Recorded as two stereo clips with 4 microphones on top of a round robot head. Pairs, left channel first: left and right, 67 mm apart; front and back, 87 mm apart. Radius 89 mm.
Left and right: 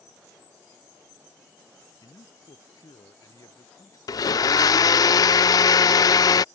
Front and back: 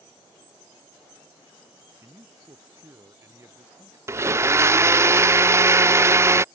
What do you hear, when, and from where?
2.0 s a man speaking: 120° left
4.1 s a blender: 120° left